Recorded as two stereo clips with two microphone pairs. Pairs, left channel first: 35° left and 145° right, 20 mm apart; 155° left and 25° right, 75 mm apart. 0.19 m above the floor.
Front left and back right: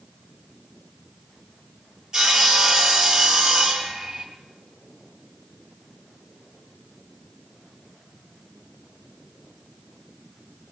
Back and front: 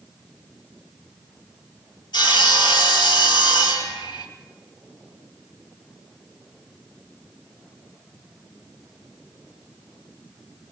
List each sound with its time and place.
2.1 s sawing: 150° left, 3.5 m